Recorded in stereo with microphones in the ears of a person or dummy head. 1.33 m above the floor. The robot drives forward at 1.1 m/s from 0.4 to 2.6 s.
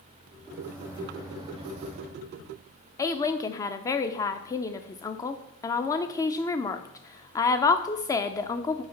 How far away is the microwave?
About 2.5 m.